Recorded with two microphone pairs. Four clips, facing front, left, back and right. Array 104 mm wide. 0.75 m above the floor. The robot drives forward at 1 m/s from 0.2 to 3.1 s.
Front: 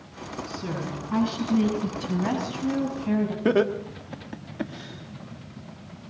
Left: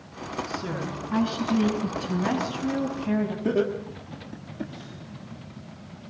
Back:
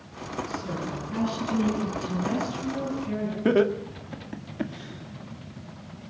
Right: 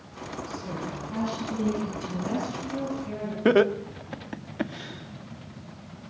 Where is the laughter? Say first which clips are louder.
Right 8 dB, back 2 dB; 70° right, 1.7 m.